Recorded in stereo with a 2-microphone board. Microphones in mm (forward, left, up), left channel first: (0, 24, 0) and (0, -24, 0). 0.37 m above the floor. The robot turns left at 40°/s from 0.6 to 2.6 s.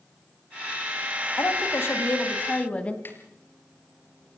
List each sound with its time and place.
1.4 s a woman speaking: 75° left, 3 m; by 3.0 s 25° left, 3 m
3.0 s a snare drum: 45° left (ahead or behind), 4 m